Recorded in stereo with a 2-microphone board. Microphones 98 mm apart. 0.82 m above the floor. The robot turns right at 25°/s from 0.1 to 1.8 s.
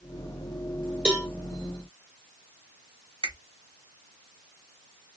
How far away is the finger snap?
About 1.3 m.